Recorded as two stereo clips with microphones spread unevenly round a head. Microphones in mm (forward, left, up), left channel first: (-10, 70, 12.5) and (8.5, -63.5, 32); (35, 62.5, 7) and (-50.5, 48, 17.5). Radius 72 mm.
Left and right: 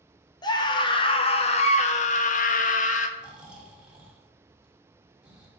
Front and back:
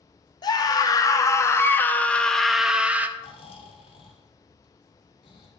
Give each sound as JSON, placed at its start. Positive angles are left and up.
{"t": 0.4, "sound": "a scream", "azimuth_deg": 40, "distance_m": 2.0}
{"t": 3.2, "sound": "snoring", "azimuth_deg": 0, "distance_m": 2.5}